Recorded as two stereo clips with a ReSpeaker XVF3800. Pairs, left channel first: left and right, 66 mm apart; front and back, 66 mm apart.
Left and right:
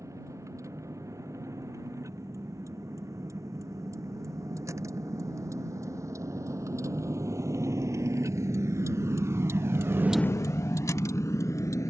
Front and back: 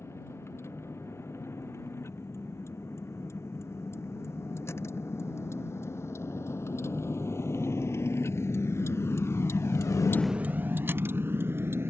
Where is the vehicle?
50° right; by 11.9 s 130° left.